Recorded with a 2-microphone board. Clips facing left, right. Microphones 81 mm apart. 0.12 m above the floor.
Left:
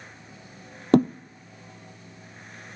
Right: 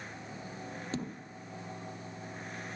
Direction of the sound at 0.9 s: 65° left (ahead or behind).